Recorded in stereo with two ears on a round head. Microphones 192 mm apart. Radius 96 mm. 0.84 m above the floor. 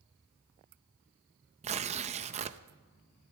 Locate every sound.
1.6 s tearing paper: 30° right (ahead or behind), 0.6 m